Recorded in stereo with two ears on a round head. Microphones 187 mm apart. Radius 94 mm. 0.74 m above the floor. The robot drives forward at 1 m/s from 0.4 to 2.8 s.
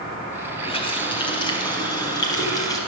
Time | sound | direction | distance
0.6 | a running tap | 30° left (ahead or behind) | 3.5 m